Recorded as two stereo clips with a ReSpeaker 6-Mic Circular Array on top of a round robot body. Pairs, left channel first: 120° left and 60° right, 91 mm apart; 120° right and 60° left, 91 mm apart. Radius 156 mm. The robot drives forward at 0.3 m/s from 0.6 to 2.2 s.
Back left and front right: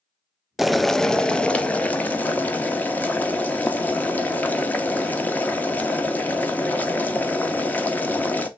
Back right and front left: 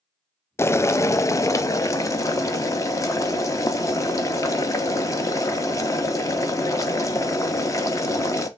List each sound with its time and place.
0.6 s boiling: 145° right, 0.5 m; by 8.5 s 170° right, 0.8 m